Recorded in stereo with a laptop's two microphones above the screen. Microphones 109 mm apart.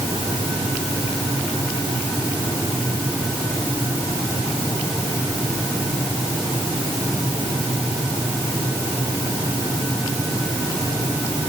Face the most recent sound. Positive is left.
No sound to turn to.